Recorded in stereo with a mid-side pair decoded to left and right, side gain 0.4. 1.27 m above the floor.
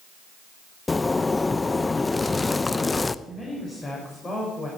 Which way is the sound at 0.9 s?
25° left.